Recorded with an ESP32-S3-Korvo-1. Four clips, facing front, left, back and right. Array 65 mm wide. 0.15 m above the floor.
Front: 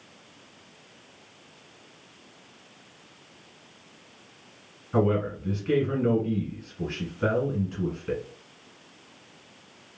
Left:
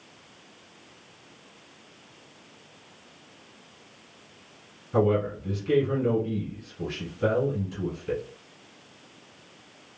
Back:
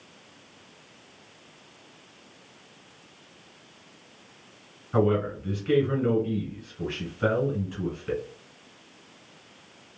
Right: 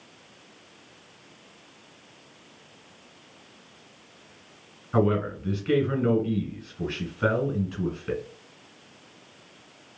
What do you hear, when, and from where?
4.9 s a man speaking: 100° right, 1.4 m